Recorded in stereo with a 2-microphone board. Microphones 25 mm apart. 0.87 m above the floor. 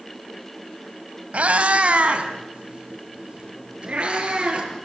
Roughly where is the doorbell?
I don't hear a doorbell.